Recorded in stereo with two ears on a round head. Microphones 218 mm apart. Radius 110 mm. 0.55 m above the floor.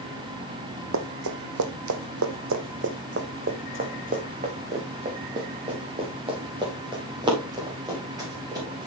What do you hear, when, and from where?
0.9 s running footsteps: 55° right (ahead or behind), 1.2 m; by 8.9 s 15° right (ahead or behind), 4.5 m